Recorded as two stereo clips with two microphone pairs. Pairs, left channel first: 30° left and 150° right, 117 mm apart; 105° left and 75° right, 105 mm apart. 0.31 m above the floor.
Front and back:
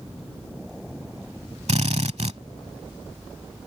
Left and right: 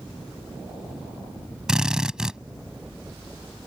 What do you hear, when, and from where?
1.7 s a drill: 155° right